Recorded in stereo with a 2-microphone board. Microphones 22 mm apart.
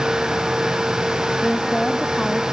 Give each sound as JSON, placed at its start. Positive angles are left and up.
{"t": 1.4, "sound": "a woman speaking", "side_deg": 30}